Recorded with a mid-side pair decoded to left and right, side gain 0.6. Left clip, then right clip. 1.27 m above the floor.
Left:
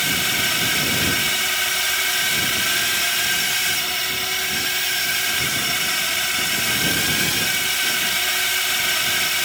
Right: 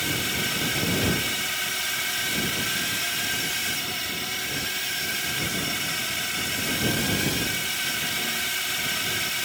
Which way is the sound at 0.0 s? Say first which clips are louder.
Left 6 dB; 40° left.